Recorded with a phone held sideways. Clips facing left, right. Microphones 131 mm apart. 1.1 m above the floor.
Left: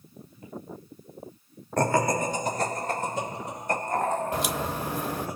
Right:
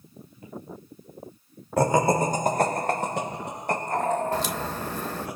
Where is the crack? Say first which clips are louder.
Even; 10° left (ahead or behind), 1.0 m.